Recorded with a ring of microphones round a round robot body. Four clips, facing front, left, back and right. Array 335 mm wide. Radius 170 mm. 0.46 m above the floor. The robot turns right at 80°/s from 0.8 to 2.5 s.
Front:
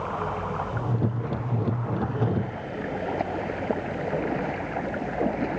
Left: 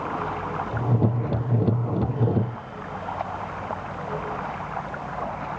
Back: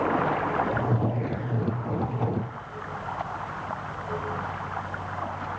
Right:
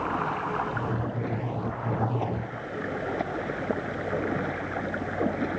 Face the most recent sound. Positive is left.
turn(degrees=-40)